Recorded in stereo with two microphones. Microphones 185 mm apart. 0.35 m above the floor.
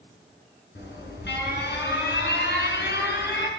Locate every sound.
0.8 s an alarm: 65° left (ahead or behind), 6.5 m